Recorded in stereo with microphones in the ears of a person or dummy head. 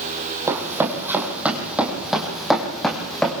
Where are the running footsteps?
10° right (ahead or behind), 2.5 m; by 3.3 s 5° left (ahead or behind), 3.5 m.